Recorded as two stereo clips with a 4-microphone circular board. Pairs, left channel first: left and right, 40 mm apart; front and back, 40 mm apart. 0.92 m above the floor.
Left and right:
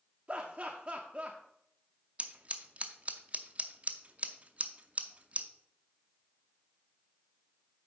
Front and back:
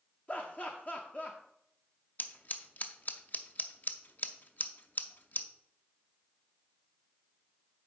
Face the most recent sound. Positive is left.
turn(degrees=-40)